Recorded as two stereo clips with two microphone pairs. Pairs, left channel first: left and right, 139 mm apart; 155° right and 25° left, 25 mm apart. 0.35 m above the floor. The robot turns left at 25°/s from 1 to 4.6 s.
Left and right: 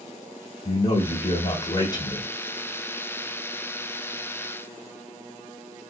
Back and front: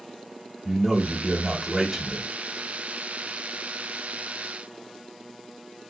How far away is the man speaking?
About 1.1 m.